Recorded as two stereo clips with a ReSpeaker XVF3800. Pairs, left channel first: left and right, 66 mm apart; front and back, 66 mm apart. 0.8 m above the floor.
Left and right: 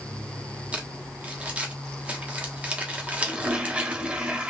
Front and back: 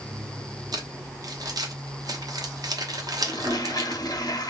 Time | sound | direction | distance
0.7 | crumpling | 160° right | 0.9 m
3.2 | a toilet flushing | 15° right | 0.7 m